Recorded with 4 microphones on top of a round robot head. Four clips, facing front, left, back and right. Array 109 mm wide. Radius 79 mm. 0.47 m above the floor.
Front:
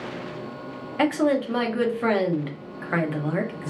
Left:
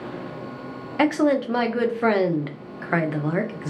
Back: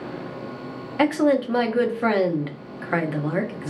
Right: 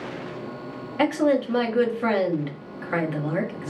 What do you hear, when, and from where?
1.0 s a woman speaking: 110° left, 0.7 m